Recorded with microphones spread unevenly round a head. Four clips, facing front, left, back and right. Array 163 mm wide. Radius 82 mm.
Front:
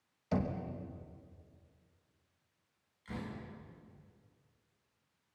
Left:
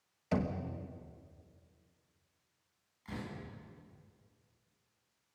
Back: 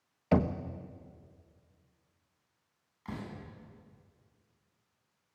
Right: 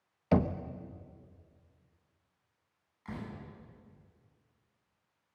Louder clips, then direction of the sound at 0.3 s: Right 6 dB, back 7 dB; 140° right.